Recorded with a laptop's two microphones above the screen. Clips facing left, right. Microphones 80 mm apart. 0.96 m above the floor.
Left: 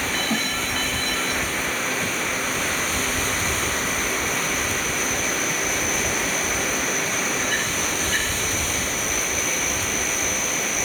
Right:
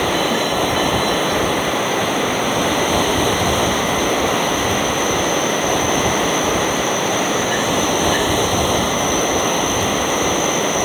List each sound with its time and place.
0.0 s running water: 60° right (ahead or behind)